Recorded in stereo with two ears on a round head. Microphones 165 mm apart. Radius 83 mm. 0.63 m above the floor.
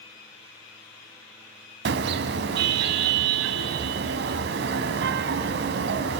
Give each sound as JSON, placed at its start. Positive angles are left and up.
{"t": 1.9, "sound": "a car horn", "side_deg": -65, "distance_m": 2.5}